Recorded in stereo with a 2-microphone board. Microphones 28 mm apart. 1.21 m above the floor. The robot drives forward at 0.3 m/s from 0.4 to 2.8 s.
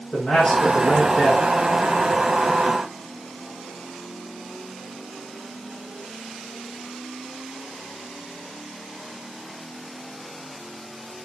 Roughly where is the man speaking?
Left.